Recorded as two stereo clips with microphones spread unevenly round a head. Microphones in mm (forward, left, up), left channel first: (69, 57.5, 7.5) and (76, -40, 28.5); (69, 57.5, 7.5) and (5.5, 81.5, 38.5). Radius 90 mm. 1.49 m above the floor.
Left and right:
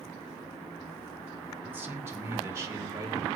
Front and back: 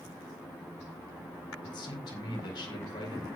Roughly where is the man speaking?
Ahead.